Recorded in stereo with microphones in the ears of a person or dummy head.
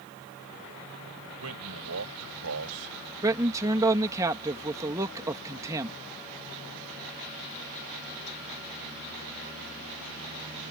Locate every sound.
1.4 s a man speaking: 90° right
3.2 s a man speaking: 20° right (ahead or behind)